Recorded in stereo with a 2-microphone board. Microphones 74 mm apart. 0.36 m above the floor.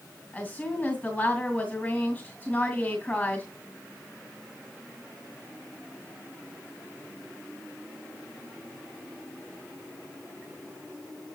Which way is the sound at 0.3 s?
25° left (ahead or behind).